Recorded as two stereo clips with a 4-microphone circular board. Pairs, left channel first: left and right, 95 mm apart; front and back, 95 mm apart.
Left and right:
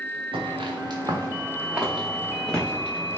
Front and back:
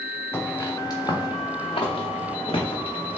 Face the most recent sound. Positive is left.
turn(degrees=20)